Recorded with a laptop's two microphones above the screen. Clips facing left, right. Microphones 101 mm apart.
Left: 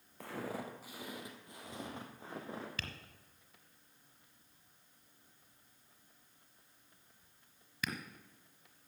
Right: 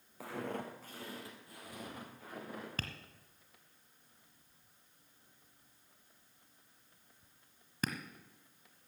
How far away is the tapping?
About 1.6 m.